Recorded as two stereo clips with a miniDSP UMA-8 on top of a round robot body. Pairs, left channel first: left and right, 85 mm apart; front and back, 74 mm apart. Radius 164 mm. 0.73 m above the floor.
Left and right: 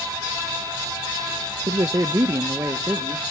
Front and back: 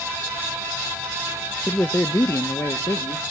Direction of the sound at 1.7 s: 65° right.